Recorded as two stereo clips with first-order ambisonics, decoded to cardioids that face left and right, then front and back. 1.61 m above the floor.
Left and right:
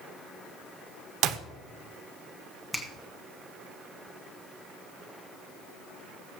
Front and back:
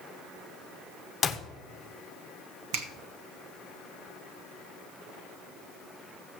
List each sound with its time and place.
1.2 s a clap: 70° right, 0.7 m
2.7 s a finger snap: straight behind, 1.1 m